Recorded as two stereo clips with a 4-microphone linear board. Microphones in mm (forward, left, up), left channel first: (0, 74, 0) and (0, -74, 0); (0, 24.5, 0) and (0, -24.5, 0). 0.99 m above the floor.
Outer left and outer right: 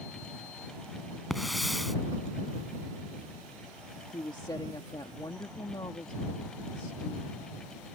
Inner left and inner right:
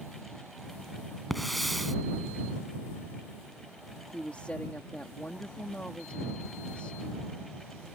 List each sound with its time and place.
1.3 s a hiss: centre (ahead or behind)
4.1 s a woman speaking: 30° left (ahead or behind)